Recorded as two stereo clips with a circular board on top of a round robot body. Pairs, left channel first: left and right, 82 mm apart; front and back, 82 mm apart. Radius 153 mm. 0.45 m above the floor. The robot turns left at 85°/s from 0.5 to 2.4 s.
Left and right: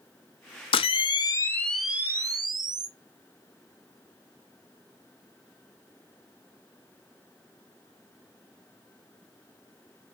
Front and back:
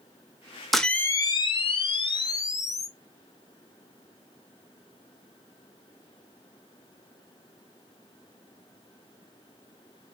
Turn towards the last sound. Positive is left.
turn(degrees=-50)